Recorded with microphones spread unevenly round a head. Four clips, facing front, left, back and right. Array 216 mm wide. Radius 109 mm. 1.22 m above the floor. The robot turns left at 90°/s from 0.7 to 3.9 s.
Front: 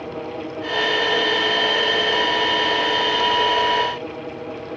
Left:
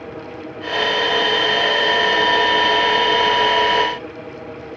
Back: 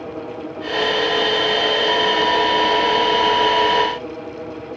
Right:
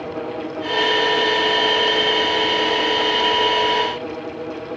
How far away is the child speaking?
I don't hear a child speaking.